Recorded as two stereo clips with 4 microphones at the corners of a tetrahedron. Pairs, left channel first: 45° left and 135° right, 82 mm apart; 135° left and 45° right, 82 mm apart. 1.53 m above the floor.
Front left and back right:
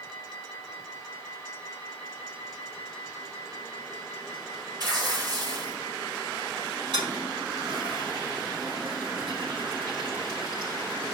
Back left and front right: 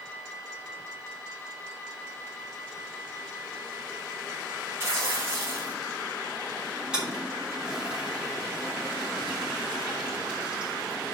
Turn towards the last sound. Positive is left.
turn(degrees=-125)